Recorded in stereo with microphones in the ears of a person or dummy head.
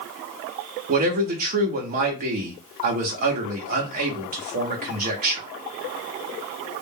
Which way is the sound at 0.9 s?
40° right (ahead or behind).